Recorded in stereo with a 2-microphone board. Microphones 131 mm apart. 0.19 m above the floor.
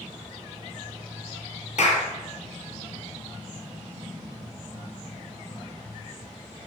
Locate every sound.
1.8 s a clap: 60° left (ahead or behind), 3 m